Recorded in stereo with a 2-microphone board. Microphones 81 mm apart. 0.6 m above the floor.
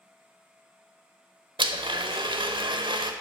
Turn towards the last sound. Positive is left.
turn(degrees=-80)